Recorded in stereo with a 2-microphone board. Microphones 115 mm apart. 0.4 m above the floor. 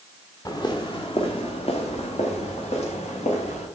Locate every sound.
0.5 s footsteps: 35° left (ahead or behind), 2 m; by 3.6 s 70° left (ahead or behind), 6.5 m